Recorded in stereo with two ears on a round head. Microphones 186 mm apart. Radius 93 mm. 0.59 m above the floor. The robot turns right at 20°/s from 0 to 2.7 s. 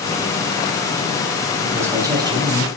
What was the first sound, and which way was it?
A man speaking, 10° right (ahead or behind).